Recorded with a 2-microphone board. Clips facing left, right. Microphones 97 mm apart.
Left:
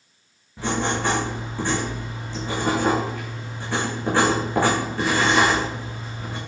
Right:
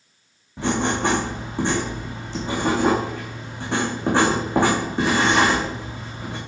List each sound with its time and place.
0.6 s writing: 20° right (ahead or behind), 4 m